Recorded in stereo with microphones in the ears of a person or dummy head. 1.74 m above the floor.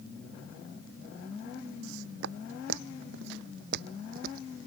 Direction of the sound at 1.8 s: 65° right (ahead or behind).